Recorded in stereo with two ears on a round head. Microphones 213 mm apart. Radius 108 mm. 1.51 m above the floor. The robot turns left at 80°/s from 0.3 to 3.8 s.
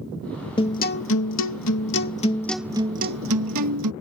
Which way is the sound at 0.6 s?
160° left.